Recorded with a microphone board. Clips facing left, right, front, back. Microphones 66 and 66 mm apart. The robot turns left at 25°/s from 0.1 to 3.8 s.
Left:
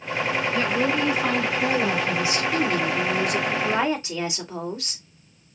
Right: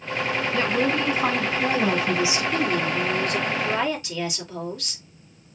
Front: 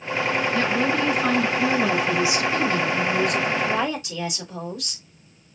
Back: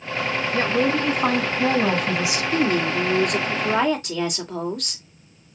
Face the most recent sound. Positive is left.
turn(degrees=150)